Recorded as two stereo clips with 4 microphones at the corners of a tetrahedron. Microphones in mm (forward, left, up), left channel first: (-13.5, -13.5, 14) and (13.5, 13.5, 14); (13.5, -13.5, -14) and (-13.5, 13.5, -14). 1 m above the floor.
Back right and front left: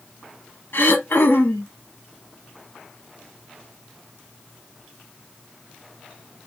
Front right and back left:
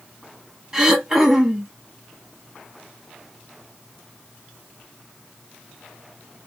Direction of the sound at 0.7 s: 150° right.